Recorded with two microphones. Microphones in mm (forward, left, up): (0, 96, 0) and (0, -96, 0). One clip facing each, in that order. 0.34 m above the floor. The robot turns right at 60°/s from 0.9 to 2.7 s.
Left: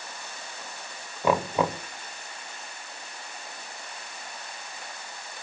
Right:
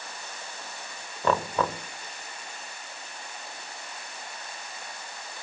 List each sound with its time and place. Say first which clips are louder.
1.2 s knocking: left 2 dB; 10° left (ahead or behind), 0.6 m; by 1.8 s 15° left (ahead or behind), 0.6 m